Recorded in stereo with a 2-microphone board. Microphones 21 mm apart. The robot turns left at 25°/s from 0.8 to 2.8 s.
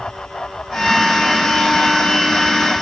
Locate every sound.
Only background noise.